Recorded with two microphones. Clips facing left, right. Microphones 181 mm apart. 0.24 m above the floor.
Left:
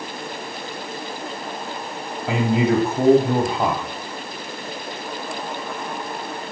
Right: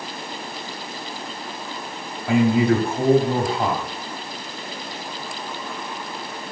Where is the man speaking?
20° left (ahead or behind), 1.7 m.